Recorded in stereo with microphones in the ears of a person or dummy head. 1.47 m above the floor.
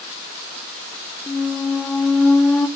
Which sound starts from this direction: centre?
A squeak, at 1.3 s.